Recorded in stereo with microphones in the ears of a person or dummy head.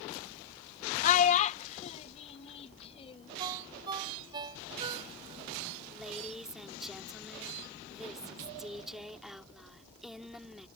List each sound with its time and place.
1.0 s a child speaking: 50° left (ahead or behind); by 3.3 s 30° left (ahead or behind)
3.4 s a ringtone: 25° right (ahead or behind)
5.9 s a woman speaking: centre (ahead or behind)